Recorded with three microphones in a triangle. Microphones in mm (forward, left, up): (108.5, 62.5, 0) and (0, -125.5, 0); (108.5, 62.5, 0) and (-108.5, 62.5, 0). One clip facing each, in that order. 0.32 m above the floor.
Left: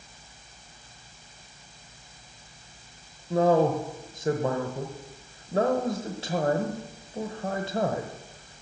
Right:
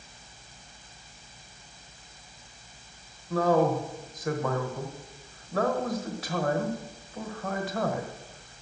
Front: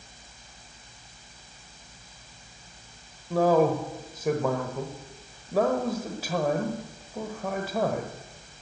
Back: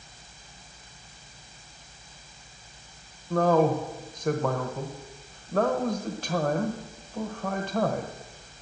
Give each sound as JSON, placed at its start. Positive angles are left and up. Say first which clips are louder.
{"t": 3.3, "sound": "a man speaking", "louder": "left 2 dB, front 1 dB", "azimuth_deg": 75, "distance_m": 1.1}